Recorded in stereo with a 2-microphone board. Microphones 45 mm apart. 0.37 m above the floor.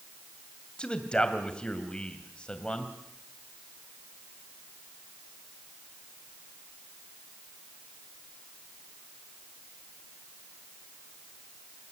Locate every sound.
0.8 s a man speaking: 20° left (ahead or behind), 2.5 m